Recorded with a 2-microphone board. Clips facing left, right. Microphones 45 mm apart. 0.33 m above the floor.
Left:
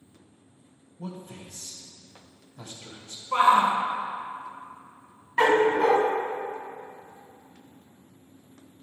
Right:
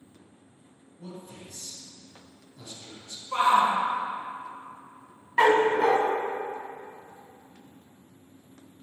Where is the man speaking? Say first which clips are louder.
Left 3 dB; 55° left (ahead or behind), 1.5 m.